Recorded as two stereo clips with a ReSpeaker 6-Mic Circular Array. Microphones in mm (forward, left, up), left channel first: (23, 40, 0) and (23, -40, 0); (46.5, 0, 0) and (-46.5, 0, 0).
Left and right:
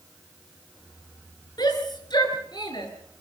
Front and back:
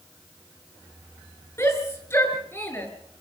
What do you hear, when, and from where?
1.6 s a shout: 60° left, 6 m; by 2.9 s 70° left, 6.5 m